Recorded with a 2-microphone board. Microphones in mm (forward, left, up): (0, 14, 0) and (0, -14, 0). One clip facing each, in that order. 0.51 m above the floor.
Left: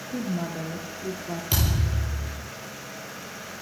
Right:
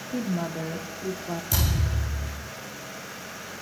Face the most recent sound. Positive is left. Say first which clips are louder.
# left 2 dB
turn(degrees=55)  # may be behind; listen again after turning